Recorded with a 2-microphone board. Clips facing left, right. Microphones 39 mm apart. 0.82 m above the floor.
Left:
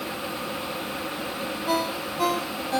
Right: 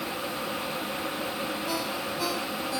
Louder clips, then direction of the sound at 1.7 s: Left 4 dB; 50° left (ahead or behind).